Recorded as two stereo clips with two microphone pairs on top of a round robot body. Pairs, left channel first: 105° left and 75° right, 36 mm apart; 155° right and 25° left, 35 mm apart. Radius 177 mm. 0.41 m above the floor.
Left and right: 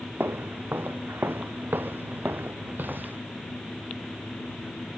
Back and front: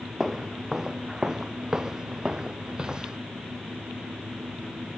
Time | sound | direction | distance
0.2 | footsteps | 55° right | ?